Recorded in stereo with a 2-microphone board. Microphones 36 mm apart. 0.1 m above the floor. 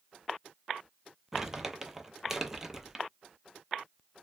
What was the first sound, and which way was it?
Crumpling, 15° right (ahead or behind).